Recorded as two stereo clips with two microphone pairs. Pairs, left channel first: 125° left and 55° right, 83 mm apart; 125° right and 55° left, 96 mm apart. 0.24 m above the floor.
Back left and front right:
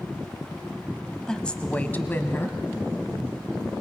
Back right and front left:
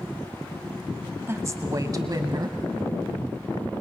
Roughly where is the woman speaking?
Ahead left.